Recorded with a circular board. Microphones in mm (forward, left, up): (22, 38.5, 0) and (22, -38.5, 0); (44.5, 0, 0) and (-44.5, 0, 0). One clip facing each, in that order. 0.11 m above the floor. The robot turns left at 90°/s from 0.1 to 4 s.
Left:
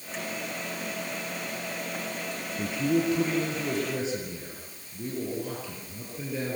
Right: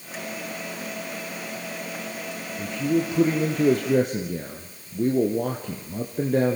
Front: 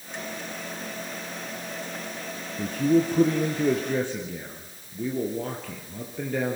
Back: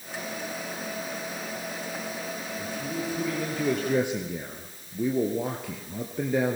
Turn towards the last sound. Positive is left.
turn(degrees=-105)